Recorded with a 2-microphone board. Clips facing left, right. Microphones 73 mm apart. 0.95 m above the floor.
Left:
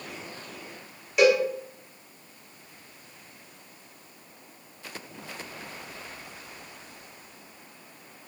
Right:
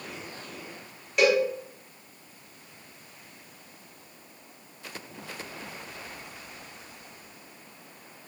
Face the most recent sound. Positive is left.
turn(degrees=5)  # may be behind; listen again after turning